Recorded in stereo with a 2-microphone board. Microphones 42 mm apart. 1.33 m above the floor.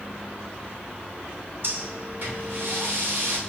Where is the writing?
I don't hear writing.